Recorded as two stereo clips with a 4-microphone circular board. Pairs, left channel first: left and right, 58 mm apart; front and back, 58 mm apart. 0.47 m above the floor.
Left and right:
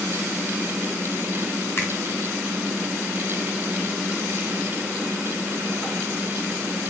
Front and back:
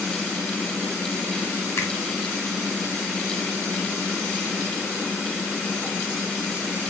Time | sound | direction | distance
1.8 | a finger snap | 40° left | 3 m